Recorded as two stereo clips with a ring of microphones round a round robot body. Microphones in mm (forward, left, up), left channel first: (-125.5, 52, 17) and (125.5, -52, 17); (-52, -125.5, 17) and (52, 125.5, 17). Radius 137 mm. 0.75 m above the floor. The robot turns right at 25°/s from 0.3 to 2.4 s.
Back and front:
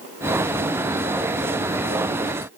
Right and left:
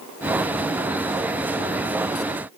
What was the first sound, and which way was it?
Only background noise.